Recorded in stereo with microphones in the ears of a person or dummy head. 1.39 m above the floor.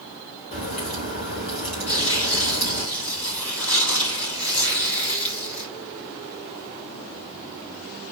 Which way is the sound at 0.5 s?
45° left (ahead or behind).